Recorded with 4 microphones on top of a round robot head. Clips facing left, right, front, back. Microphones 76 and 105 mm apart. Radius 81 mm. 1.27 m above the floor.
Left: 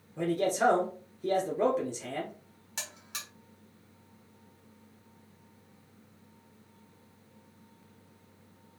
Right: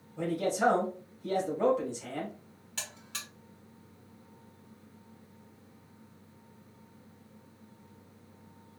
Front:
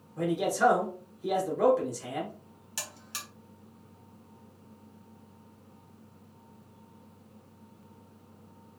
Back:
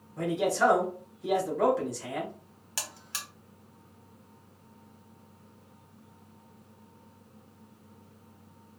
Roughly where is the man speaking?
Left.